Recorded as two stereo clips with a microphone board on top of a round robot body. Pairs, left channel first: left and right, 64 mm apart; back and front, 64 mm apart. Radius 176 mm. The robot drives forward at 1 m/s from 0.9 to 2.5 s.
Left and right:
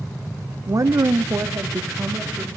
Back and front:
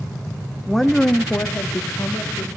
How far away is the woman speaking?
About 1.2 m.